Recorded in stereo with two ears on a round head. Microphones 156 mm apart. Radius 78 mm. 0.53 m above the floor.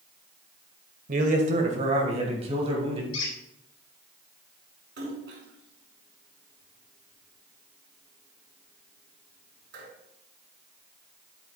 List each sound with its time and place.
1.1 s a man speaking: 50° right (ahead or behind), 1.8 m; by 3.0 s 30° right (ahead or behind), 3 m
3.1 s a squeak: 80° left, 3 m
5.0 s a splash: 70° right (ahead or behind), 5 m